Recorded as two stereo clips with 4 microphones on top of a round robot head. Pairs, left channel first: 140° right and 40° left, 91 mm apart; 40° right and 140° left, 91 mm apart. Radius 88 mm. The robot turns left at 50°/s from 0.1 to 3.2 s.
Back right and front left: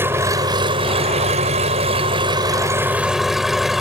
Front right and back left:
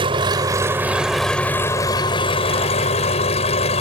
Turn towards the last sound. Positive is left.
turn(degrees=-50)